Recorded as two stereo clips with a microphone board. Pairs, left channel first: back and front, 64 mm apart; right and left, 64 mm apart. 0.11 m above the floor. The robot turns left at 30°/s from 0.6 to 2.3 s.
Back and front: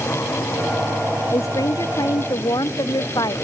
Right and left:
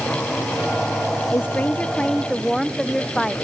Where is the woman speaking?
145° right; by 3.4 s 175° right.